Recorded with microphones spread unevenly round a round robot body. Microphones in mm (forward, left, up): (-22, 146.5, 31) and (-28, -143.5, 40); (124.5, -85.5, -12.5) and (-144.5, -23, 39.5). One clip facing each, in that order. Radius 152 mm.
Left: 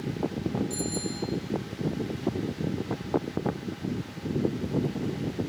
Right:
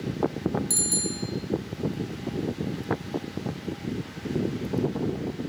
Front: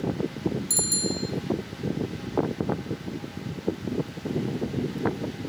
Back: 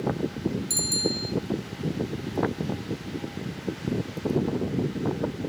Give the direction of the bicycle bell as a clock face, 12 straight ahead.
3 o'clock.